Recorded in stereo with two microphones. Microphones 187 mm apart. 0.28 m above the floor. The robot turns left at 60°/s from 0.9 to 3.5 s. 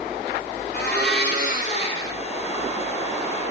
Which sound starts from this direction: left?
A blender, at 0.7 s.